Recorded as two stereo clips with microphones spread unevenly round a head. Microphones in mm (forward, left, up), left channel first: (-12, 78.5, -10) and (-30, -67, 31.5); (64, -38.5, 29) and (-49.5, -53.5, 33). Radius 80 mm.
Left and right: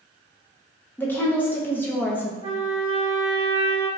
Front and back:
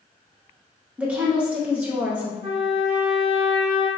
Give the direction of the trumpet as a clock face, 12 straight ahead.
5 o'clock.